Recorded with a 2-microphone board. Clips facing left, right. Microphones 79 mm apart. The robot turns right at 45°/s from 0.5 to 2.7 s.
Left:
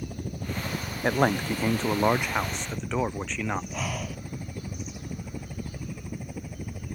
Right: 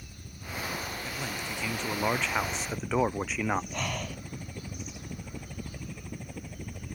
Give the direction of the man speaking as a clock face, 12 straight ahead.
8 o'clock.